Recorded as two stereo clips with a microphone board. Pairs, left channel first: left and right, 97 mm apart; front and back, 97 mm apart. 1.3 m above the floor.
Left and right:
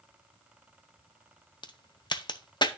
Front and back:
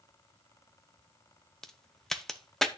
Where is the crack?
85° left, 0.7 m.